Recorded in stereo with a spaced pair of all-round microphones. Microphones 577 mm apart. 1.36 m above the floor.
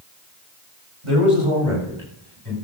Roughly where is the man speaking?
Right.